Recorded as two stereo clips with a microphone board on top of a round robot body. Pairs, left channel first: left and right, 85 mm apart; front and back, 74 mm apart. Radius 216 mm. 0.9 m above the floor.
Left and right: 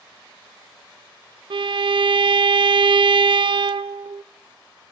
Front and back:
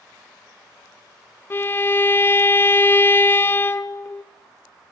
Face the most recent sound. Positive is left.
turn(degrees=-60)